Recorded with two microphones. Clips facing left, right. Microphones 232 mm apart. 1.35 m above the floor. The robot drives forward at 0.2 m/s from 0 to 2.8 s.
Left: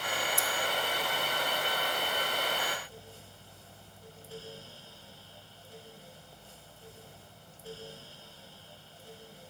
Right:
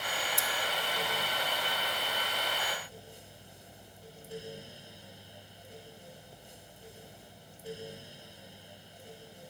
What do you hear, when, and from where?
0.4 s scissors: 5° left (ahead or behind), 1.0 m